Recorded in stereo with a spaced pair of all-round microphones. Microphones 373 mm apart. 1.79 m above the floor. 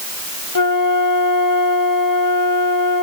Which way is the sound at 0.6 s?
55° left (ahead or behind).